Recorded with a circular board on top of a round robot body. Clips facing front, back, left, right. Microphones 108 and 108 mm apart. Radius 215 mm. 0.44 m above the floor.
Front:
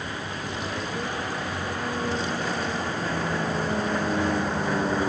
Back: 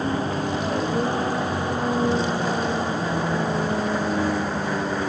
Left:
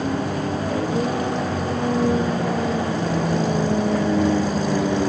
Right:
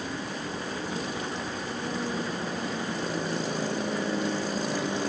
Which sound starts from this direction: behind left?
A vehicle, at 0.0 s.